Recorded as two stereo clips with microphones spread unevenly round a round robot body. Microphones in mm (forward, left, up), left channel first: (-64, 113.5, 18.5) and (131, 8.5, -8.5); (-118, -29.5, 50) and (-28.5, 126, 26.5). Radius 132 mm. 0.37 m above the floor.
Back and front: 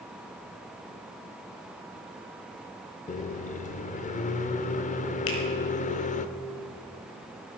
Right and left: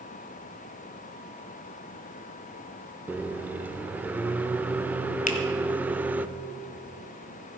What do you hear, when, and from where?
3.1 s a microwave: 120° left, 0.6 m
5.3 s a finger snap: 165° right, 2 m